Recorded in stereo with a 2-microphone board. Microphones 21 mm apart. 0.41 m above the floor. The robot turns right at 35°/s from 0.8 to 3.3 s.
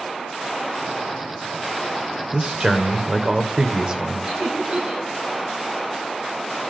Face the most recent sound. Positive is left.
turn(degrees=-70)  # may be behind; listen again after turning